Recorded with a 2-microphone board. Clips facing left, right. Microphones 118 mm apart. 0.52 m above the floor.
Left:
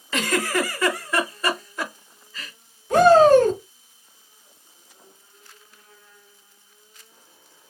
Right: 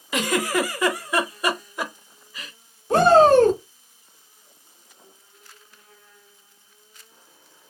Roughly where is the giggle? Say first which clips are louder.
Right 1 dB; centre.